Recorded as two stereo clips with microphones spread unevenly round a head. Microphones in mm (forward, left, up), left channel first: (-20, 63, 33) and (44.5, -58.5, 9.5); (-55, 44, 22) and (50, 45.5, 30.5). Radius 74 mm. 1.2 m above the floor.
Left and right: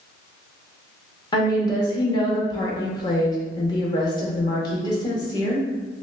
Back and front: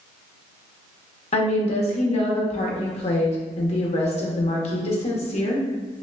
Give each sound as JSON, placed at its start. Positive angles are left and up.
{"t": 1.3, "sound": "a woman speaking", "azimuth_deg": -175, "distance_m": 1.0}